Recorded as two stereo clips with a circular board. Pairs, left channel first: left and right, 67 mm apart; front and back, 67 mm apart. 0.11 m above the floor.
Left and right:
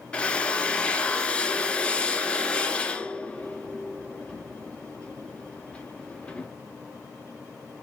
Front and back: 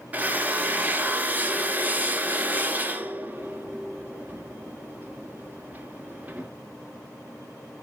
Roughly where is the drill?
Behind left.